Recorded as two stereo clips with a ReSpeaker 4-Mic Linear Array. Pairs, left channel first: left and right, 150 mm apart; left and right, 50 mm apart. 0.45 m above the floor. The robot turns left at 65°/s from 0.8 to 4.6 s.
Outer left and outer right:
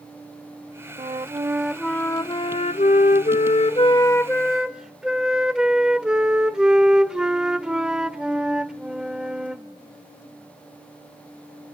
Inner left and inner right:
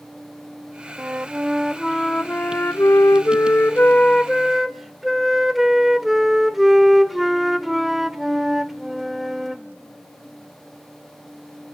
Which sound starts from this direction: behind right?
A flute, at 1.0 s.